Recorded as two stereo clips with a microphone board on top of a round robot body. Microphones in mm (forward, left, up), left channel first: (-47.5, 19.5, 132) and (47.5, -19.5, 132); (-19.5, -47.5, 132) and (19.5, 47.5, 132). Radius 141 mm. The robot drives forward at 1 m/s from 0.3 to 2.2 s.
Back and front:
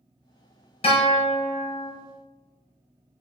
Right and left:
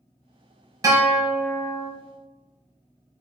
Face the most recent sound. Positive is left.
turn(degrees=165)